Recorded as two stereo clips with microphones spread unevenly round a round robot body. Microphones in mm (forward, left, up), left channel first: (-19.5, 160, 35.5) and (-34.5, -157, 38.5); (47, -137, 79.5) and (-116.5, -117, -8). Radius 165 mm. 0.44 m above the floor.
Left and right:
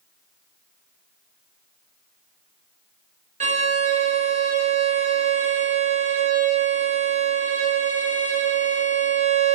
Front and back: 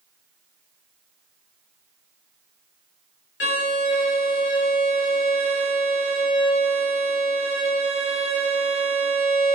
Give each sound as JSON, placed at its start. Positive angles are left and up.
{"t": 3.4, "sound": "a violin", "azimuth_deg": -25, "distance_m": 0.9}